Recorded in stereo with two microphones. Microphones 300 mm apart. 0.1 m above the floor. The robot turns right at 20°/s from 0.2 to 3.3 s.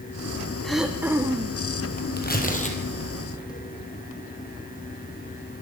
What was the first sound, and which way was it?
Throat clearing, centre (ahead or behind).